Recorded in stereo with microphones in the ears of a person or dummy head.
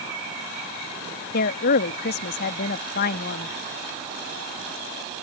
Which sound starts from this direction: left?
A woman speaking, at 1.3 s.